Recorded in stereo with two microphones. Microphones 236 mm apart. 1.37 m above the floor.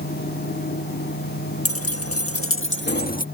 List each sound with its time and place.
1.6 s keys jangling: 70° left (ahead or behind); by 3.2 s 35° left (ahead or behind)